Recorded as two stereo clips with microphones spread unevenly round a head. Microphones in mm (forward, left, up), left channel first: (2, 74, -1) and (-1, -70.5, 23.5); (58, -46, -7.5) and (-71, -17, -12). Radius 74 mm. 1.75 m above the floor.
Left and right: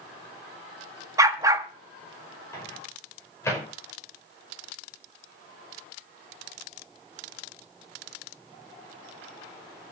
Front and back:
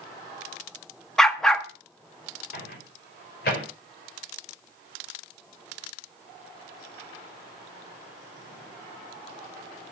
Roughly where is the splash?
No splash in this recording.